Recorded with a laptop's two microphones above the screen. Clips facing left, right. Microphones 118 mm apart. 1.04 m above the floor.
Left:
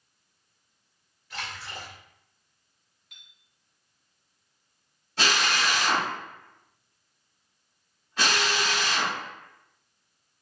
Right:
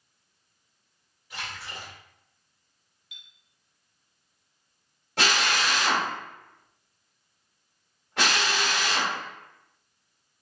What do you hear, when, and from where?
1.3 s a splash: 15° right (ahead or behind), 2.0 m
3.1 s a clink: 50° left (ahead or behind), 1.8 m
5.2 s a drill: 65° right (ahead or behind), 1.5 m